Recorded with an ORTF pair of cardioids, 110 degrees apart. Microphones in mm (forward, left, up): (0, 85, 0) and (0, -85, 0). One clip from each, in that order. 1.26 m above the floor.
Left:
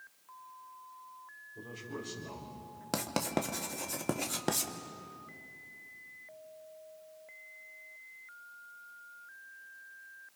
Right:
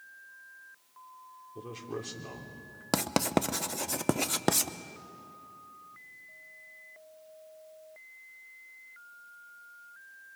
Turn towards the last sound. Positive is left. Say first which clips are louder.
# right 5 dB
turn(degrees=-30)